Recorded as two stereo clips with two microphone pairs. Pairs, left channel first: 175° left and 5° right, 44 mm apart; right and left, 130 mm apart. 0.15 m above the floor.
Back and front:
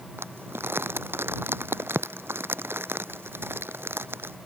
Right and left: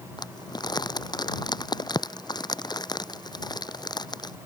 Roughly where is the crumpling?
Ahead right.